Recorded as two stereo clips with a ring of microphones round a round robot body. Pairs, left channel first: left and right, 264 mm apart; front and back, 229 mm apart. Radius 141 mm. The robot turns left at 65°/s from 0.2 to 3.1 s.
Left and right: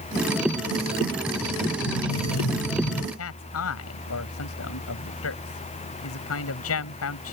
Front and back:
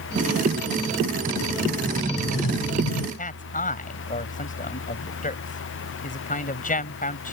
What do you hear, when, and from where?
1.9 s an explosion: 95° left; by 3.1 s 15° left
3.2 s a man speaking: 55° left